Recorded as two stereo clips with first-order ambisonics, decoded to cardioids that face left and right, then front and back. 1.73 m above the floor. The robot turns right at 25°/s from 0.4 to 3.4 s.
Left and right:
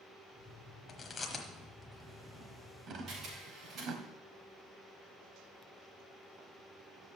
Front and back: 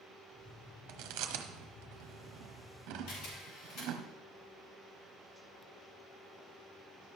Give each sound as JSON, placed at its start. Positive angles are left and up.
{"t": 0.9, "sound": "chewing", "azimuth_deg": 155, "distance_m": 1.2}
{"t": 3.1, "sound": "a camera shutter", "azimuth_deg": -30, "distance_m": 6.0}